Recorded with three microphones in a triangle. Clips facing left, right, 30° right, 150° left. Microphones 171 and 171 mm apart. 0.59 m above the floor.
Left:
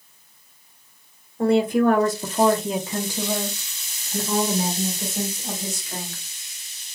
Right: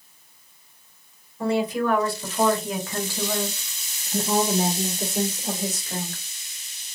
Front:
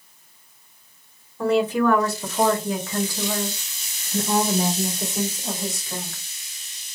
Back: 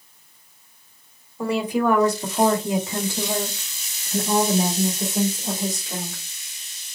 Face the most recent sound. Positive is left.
turn(degrees=-135)